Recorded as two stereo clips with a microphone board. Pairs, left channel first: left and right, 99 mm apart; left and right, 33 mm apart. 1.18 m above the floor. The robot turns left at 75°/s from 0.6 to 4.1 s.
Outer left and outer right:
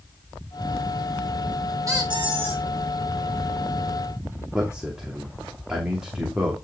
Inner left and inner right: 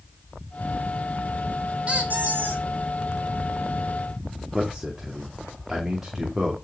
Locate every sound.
1.9 s a squeak: 35° right, 2 m; by 2.6 s 95° right, 2 m
4.5 s a man speaking: 10° right (ahead or behind), 2.5 m